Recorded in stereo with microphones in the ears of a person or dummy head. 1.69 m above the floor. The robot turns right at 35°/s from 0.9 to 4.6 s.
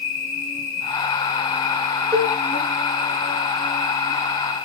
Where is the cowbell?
10° right (ahead or behind), 0.7 m; by 2.4 s 15° right (ahead or behind), 0.7 m.